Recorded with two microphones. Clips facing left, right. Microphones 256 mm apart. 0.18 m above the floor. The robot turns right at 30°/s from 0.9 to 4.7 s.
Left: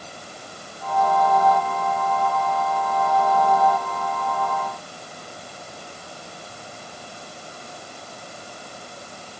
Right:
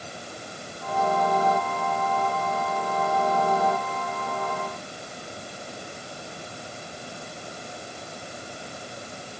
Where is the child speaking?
No child speaking in this recording.